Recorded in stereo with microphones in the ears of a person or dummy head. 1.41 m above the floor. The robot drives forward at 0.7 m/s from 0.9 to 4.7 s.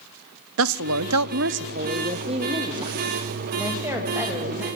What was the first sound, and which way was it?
A man speaking, 70° right (ahead or behind).